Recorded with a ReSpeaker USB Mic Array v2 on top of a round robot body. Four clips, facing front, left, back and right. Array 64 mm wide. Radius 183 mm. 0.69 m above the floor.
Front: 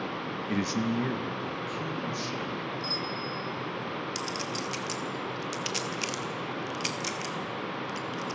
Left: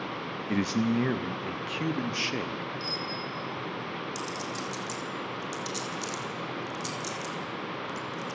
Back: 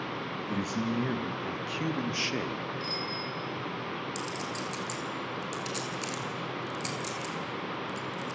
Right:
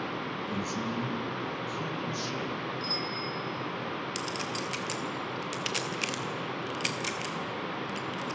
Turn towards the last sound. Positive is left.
turn(degrees=-70)